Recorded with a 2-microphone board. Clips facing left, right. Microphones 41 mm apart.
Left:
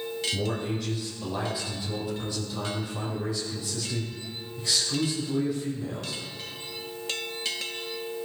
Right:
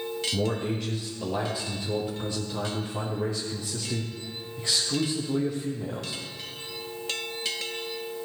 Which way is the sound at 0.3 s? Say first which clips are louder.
Right 4 dB; 40° right (ahead or behind).